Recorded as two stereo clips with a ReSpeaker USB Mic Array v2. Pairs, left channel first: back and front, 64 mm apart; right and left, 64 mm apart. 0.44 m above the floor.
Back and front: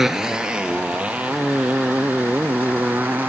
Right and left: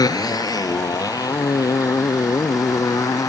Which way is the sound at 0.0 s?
85° right.